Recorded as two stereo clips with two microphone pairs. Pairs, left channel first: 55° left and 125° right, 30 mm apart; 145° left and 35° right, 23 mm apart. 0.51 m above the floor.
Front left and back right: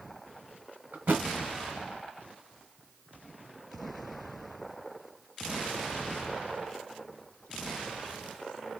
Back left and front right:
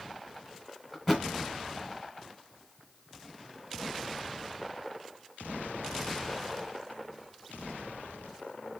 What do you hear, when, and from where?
0.9 s a thud: 130° right, 1.6 m